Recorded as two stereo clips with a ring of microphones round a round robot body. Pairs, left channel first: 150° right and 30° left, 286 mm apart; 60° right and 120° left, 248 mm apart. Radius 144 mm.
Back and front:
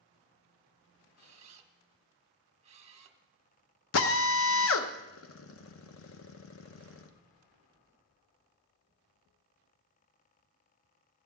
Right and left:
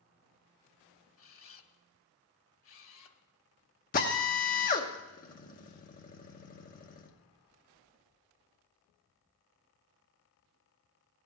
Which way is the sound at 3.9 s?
115° right.